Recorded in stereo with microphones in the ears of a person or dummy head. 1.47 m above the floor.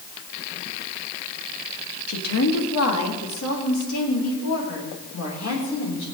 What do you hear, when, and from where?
2.1 s a woman speaking: 70° left (ahead or behind), 1.9 m; by 6.0 s 75° left (ahead or behind), 4.5 m